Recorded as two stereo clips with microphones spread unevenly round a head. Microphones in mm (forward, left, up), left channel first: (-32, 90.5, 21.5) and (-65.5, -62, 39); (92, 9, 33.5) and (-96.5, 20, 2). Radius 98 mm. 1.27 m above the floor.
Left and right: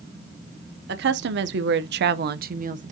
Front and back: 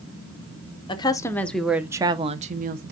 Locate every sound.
0.9 s a woman speaking: 70° right, 0.9 m; by 2.9 s 145° right, 0.8 m